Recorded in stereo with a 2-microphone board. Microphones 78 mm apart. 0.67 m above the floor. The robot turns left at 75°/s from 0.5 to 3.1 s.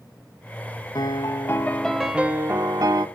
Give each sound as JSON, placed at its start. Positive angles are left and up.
{"t": 0.9, "sound": "a piano", "azimuth_deg": 75, "distance_m": 1.5}